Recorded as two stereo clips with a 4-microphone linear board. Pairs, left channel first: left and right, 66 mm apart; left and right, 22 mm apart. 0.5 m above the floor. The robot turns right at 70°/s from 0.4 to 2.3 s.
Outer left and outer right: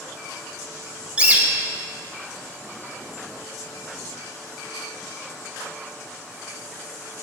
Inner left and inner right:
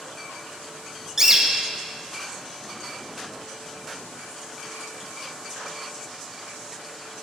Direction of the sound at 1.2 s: 160° right.